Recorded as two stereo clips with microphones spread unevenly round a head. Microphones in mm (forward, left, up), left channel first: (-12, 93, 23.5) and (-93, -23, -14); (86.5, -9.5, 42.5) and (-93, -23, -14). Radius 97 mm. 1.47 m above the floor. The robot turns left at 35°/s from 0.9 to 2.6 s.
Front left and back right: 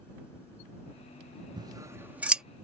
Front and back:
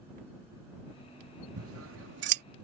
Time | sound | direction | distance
1.6 | scissors | 170° left | ?